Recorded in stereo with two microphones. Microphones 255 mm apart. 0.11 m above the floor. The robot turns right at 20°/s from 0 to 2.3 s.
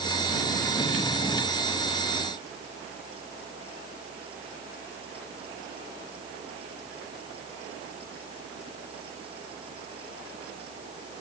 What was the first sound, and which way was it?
Only background noise.